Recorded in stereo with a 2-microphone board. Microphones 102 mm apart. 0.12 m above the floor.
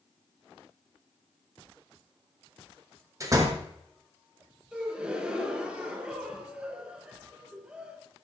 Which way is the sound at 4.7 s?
10° right (ahead or behind).